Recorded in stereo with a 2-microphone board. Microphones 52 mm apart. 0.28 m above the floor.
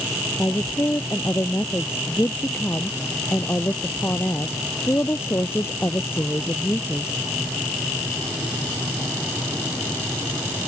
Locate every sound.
0.4 s a woman speaking: 55° left (ahead or behind)